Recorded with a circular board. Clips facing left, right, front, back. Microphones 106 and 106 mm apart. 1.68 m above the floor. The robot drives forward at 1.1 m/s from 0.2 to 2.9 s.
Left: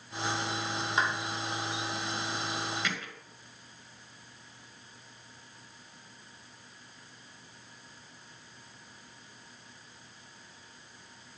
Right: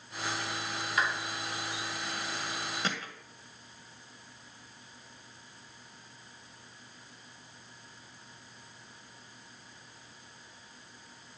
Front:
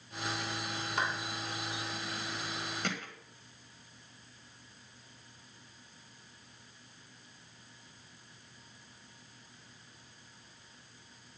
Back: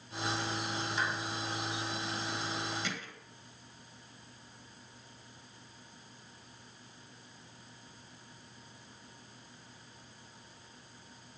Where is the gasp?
No gasp in this recording.